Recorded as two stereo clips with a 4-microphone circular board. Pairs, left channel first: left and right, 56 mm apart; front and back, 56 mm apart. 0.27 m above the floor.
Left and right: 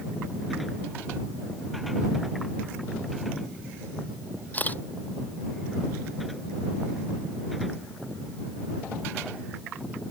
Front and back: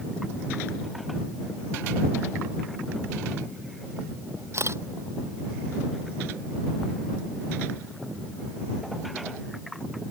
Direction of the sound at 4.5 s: 150° left.